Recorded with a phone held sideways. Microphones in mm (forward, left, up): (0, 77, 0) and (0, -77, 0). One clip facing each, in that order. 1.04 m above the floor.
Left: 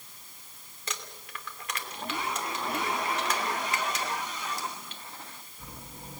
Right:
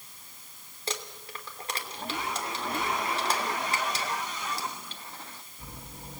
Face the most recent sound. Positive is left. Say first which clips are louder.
# right 4 dB
turn(degrees=-30)  # may be behind; listen again after turning